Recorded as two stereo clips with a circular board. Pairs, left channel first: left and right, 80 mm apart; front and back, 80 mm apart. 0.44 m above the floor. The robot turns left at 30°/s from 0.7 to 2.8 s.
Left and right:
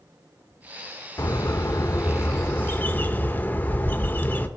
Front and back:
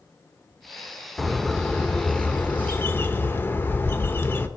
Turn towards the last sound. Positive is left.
turn(degrees=40)